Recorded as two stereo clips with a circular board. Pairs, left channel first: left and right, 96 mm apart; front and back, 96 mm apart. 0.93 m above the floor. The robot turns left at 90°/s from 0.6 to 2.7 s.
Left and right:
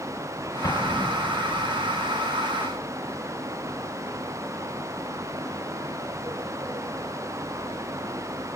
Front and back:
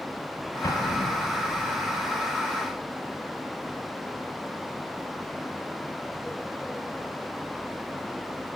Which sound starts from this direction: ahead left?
An explosion, at 0.6 s.